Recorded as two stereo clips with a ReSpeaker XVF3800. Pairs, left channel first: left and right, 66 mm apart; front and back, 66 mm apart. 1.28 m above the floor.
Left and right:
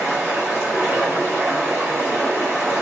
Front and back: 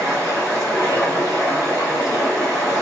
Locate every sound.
0.0 s running water: 35° right, 1.9 m